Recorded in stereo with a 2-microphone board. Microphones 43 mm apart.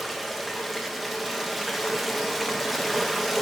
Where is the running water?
Centre (ahead or behind), 1.1 m.